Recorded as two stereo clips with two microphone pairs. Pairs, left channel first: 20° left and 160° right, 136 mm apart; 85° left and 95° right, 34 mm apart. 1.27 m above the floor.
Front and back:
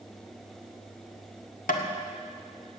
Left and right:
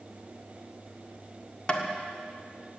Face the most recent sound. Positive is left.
turn(degrees=20)